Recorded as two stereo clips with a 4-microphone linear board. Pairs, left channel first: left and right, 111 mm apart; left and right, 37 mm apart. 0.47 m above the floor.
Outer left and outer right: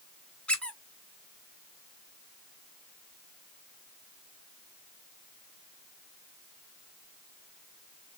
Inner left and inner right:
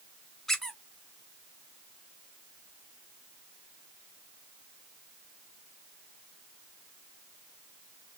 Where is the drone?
No drone in this recording.